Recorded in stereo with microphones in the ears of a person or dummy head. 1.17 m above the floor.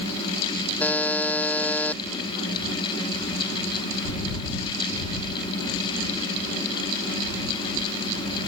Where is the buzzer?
10° left (ahead or behind).